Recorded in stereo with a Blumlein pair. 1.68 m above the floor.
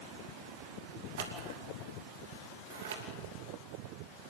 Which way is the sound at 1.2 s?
55° right.